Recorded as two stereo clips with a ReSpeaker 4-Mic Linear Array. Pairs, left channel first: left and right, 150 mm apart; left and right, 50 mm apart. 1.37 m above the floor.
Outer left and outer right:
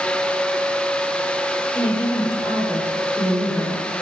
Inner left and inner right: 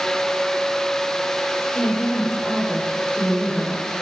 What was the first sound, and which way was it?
A woman speaking, 25° left (ahead or behind).